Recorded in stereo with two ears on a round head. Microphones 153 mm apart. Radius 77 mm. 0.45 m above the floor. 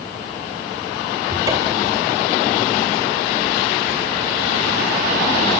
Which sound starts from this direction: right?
A cupboard door, at 1.3 s.